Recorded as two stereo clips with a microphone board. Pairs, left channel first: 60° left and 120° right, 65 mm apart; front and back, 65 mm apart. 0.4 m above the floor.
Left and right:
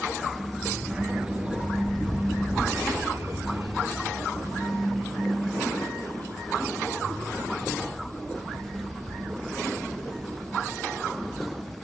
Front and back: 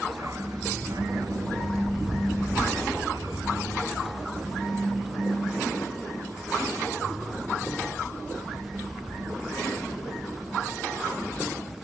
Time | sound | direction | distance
0.1 | a dog barking | 150° left | ?